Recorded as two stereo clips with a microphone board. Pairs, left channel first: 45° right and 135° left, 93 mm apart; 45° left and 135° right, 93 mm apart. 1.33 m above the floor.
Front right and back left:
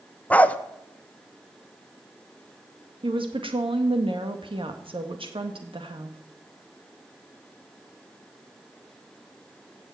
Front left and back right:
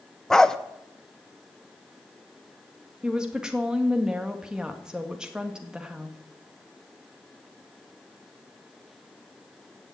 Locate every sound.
0.3 s a dog barking: 25° right, 0.7 m
3.0 s a woman speaking: 145° left, 1.9 m